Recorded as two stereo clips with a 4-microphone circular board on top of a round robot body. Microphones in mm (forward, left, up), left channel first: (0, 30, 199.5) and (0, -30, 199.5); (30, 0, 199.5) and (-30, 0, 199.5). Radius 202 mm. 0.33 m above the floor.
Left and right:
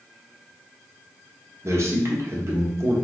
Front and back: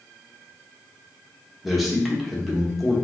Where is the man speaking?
95° right, 1.3 m.